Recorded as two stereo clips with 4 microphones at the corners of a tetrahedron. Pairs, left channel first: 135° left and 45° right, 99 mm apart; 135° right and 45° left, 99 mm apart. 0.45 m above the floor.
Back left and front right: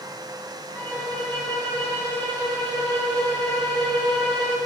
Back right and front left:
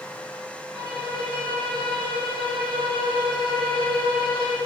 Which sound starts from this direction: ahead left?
A violin, at 0.8 s.